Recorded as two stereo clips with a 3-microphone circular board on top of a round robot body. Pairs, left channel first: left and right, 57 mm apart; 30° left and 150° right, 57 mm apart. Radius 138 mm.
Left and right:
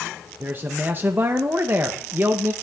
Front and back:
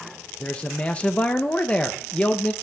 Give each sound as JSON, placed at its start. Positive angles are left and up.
{"t": 0.4, "sound": "a man speaking", "azimuth_deg": -40, "distance_m": 0.5}